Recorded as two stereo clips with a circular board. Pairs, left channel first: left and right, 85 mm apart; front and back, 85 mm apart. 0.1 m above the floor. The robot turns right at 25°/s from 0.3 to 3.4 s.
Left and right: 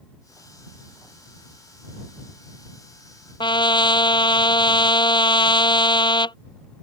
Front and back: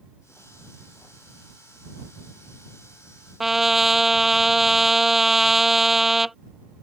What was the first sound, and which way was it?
A trumpet, 95° left.